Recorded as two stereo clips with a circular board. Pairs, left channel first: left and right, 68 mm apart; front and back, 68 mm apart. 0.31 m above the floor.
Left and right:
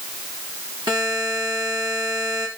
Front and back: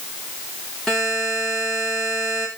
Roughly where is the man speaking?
No man speaking in this recording.